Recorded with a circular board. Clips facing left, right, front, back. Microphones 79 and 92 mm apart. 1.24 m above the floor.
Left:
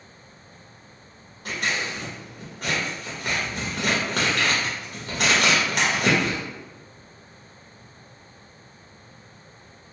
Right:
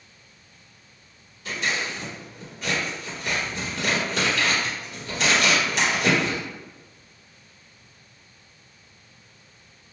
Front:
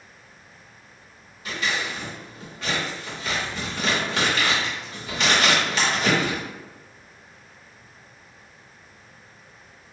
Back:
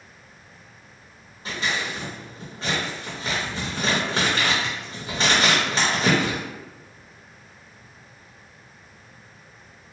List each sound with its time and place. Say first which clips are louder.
1.4 s scissors: even, even; 125° left, 1.0 m